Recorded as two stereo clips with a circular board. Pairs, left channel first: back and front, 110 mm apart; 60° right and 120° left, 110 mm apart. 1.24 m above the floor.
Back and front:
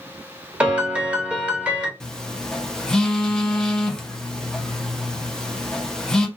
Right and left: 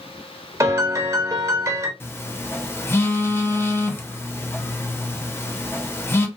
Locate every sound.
0.6 s a piano: 75° left, 0.7 m
2.0 s a phone buzzing: 100° right, 0.5 m